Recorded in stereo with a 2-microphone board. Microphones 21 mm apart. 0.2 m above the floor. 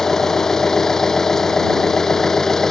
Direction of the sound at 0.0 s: 20° left (ahead or behind).